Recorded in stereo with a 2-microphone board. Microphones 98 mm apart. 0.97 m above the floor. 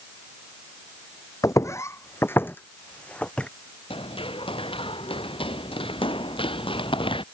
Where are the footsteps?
35° left (ahead or behind); by 3.5 s 10° left (ahead or behind).